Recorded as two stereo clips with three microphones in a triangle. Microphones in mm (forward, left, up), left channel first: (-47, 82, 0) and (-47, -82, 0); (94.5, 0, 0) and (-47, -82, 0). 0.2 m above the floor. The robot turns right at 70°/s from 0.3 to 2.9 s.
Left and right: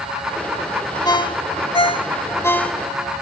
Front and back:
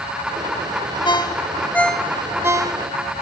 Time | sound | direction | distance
1.1 | a ringtone | 55° left | 0.8 m